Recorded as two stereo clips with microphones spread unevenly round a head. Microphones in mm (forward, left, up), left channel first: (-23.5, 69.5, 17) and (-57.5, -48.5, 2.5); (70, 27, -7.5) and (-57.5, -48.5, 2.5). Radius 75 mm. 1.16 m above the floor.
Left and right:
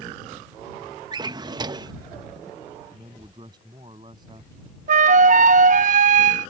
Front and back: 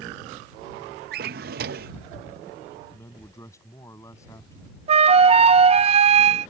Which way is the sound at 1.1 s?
165° right.